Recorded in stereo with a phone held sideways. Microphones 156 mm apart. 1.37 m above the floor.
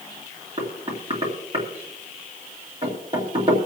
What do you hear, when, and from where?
0.6 s knocking: 40° right (ahead or behind), 3 m